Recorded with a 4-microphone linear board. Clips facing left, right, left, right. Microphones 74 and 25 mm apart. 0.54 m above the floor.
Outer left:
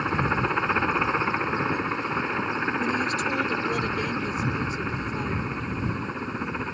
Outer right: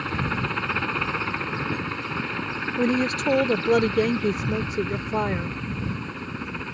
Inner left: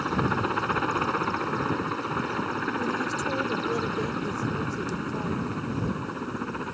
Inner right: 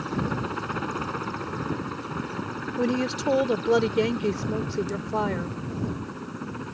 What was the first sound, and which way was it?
A helicopter, 15° left (ahead or behind).